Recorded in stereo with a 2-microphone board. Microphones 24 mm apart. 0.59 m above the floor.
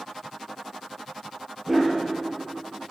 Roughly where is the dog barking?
Centre.